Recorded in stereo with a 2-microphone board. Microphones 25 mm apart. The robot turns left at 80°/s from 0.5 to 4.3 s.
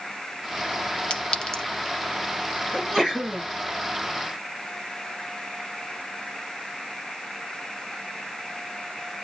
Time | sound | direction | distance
1.1 | a clink | 40° left (ahead or behind) | 0.7 m
2.7 | a sneeze | straight ahead | 2.0 m